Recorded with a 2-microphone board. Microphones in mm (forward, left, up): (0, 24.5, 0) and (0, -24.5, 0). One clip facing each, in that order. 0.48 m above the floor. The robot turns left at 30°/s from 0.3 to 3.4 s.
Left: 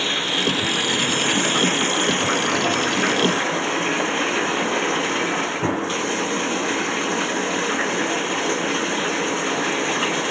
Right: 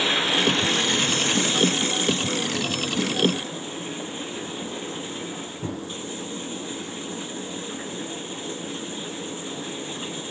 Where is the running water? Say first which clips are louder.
Even; 175° right; by 10.3 s 90° left.